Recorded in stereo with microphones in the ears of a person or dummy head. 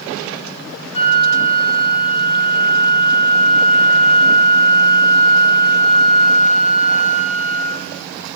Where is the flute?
25° left (ahead or behind), 4 m.